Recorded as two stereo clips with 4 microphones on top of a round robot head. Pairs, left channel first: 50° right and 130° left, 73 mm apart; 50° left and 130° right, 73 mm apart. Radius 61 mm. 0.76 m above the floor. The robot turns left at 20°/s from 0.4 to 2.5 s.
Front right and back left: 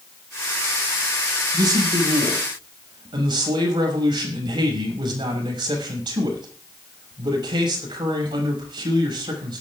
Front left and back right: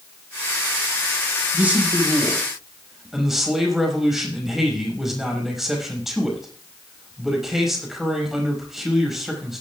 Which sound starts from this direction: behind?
A man speaking, at 1.5 s.